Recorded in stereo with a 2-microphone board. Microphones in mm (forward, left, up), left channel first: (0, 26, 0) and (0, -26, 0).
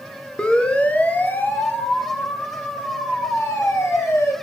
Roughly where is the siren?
Centre.